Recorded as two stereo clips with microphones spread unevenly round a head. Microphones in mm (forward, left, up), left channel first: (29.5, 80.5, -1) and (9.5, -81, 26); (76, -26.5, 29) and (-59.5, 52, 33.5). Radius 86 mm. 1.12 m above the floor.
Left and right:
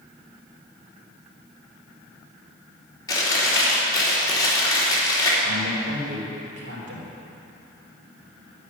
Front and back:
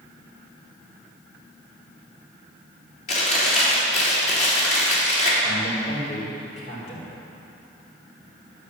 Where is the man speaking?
85° right, 3.5 m.